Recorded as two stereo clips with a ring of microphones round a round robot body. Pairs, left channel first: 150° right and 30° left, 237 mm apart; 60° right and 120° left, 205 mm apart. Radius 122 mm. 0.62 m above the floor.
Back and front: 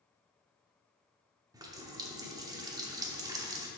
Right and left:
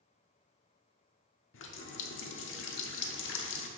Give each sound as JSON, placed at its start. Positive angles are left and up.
{"t": 1.5, "sound": "a running tap", "azimuth_deg": -45, "distance_m": 0.8}